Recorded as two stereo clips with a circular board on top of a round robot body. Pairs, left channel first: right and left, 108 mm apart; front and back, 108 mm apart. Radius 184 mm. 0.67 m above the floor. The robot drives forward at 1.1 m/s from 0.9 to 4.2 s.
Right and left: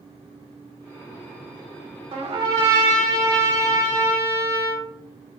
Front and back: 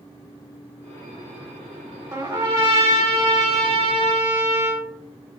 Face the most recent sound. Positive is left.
turn(degrees=155)